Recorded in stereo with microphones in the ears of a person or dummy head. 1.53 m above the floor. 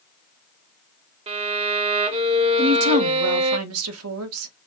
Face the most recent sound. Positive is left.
turn(degrees=-85)